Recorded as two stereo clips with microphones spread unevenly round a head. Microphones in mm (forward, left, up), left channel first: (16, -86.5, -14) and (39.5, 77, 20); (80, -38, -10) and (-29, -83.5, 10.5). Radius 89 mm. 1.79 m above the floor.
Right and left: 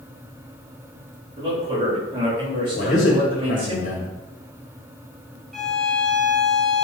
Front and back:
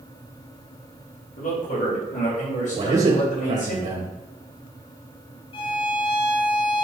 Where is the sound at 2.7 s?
145° right, 2.5 m.